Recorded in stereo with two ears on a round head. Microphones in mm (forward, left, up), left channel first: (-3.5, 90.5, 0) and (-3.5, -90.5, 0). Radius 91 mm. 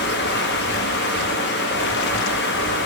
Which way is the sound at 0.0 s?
55° left (ahead or behind).